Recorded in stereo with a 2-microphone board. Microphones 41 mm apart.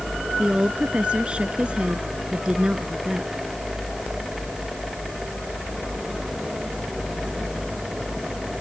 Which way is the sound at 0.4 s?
25° right (ahead or behind).